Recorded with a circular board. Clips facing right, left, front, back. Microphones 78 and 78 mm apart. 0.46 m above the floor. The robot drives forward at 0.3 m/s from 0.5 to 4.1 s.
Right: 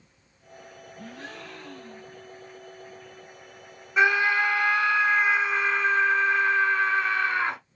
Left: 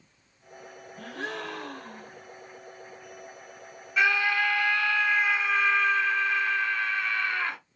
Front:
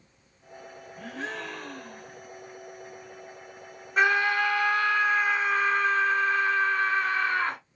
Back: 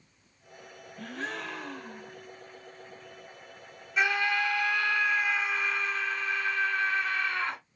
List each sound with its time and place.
1.0 s a gasp: 80° left, 0.8 m; by 2.2 s 110° left, 0.8 m
4.0 s a scream: 40° right, 1.3 m; by 7.6 s 45° right, 1.3 m